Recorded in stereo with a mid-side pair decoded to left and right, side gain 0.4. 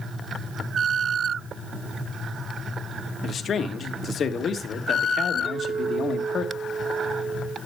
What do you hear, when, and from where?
3.2 s a man speaking: 55° left, 1.5 m
5.5 s a clink: 45° right, 4 m